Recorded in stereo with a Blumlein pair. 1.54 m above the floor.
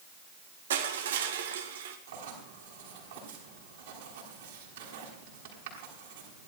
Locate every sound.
0.7 s crushing: 60° right, 1.9 m
2.1 s writing: 60° right, 6 m